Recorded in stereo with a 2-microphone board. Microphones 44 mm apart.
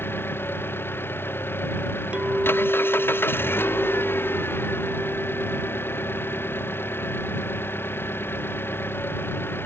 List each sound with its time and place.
0.0 s an engine running: 55° left (ahead or behind)
2.1 s a clink: 25° right (ahead or behind)